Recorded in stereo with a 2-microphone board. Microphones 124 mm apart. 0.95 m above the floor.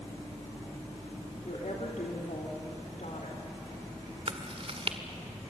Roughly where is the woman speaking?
Left.